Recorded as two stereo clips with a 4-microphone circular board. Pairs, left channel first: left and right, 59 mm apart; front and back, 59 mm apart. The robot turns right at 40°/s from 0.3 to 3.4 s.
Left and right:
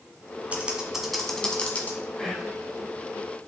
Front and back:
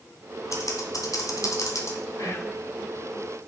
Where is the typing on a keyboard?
25° right, 1.5 m; by 2.0 s 35° left, 1.5 m.